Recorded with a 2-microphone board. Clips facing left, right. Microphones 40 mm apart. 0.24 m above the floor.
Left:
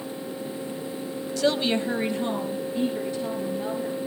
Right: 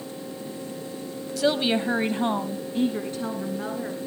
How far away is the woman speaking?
About 1.1 m.